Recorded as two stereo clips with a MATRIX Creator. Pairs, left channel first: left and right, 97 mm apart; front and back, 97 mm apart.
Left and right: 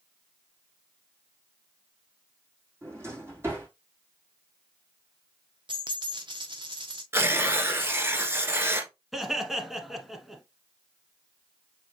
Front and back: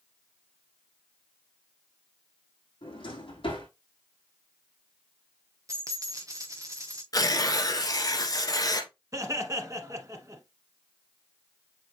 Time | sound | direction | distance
2.8 | a drawer | 25° right | 4 m
5.7 | a dropped coin | 125° right | 0.9 m
7.1 | tearing paper | 35° right | 1.4 m
9.1 | laughter | 175° right | 1.3 m